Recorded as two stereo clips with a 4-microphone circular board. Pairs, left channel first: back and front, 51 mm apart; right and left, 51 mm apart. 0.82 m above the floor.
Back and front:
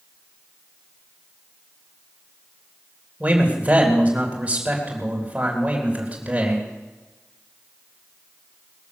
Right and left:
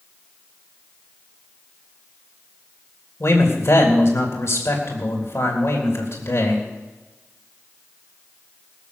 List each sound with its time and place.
3.2 s a man speaking: 60° right, 3.5 m